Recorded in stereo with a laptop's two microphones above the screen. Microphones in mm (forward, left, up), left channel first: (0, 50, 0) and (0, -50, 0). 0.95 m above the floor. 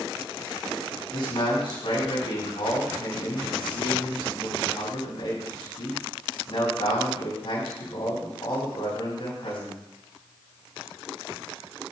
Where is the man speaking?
65° left (ahead or behind), 5.5 m.